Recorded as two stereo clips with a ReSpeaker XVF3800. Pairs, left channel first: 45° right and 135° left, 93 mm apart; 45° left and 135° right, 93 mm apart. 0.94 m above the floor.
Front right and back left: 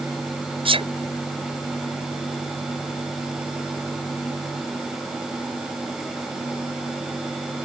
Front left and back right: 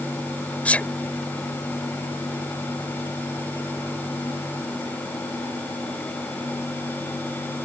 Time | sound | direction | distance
0.7 | a sneeze | 120° left | ?